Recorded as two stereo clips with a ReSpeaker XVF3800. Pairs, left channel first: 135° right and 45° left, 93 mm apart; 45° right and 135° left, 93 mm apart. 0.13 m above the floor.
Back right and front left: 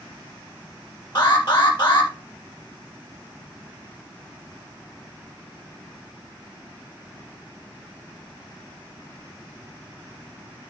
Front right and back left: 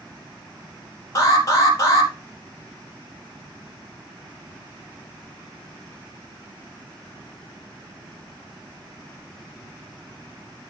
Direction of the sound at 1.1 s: 100° right.